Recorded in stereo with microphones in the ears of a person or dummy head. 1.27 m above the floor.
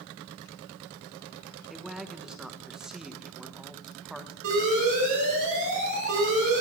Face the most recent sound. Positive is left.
turn(degrees=-60)  # may be behind; listen again after turning